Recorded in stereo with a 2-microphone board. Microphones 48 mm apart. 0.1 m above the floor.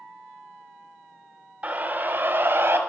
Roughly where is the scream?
Right.